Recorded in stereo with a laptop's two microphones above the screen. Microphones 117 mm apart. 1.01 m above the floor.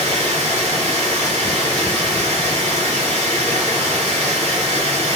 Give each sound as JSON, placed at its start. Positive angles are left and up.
{"t": 0.0, "sound": "running water", "side_deg": -65, "distance_m": 2.5}